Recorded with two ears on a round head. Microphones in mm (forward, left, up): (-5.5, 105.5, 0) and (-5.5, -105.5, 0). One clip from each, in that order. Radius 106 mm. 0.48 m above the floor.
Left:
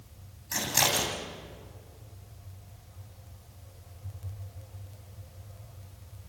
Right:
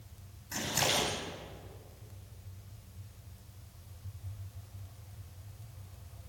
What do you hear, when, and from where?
0.5 s scissors: 25° left (ahead or behind), 8 m